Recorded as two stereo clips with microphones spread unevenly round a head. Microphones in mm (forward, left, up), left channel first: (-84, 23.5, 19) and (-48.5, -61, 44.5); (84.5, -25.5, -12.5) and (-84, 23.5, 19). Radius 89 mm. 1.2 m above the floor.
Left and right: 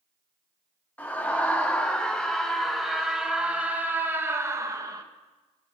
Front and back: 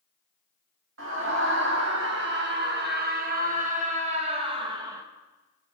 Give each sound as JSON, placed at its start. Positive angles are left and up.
{"t": 1.0, "sound": "a scream", "azimuth_deg": -175, "distance_m": 3.5}